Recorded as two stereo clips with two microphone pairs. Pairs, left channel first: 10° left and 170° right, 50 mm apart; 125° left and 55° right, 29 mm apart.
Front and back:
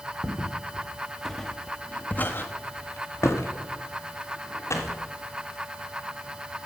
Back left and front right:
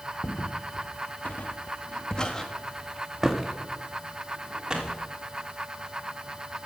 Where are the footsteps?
125° left, 2.5 m; by 5.0 s 5° left, 3.5 m.